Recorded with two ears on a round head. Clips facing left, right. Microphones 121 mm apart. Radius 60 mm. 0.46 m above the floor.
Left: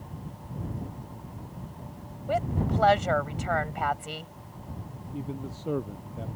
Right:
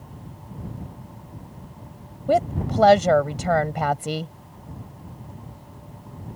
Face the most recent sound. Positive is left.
turn(degrees=85)